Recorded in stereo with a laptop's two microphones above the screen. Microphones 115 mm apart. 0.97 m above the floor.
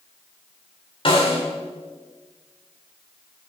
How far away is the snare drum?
About 2 m.